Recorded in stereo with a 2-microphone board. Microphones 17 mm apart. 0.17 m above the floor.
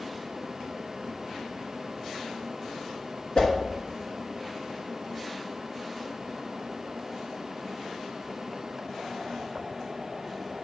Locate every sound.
3.4 s a whoosh: 50° left (ahead or behind), 2 m